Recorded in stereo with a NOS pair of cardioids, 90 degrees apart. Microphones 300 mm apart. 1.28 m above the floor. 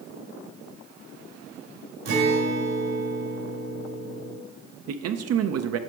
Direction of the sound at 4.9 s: 55° right.